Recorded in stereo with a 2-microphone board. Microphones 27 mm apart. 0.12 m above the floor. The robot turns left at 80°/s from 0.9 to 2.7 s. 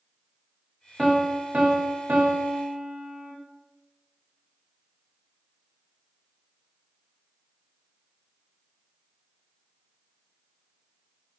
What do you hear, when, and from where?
1.0 s a piano: straight ahead, 2.5 m; by 3.3 s 135° right, 2.5 m